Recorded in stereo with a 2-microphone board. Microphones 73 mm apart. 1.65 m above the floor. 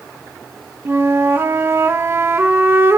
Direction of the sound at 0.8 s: 35° right (ahead or behind).